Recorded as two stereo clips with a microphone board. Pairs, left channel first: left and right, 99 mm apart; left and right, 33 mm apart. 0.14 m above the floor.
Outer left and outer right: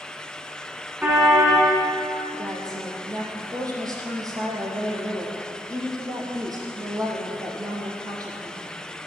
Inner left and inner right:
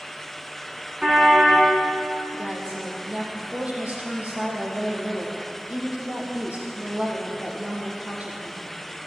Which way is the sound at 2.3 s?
40° right (ahead or behind).